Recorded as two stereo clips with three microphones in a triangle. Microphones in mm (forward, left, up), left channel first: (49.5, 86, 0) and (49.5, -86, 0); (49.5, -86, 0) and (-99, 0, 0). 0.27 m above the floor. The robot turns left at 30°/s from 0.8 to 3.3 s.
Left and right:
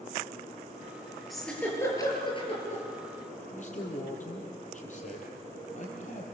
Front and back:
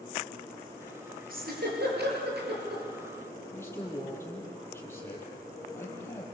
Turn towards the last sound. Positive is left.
turn(degrees=45)